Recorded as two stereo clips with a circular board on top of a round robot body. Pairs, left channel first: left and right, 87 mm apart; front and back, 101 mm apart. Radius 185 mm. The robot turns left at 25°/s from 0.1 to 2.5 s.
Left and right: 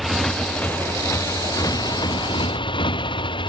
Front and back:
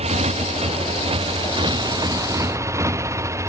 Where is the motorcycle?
Straight behind; by 3.5 s 120° left.